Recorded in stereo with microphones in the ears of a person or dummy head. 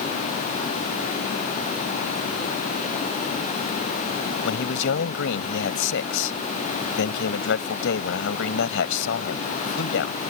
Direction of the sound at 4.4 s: 70° left (ahead or behind).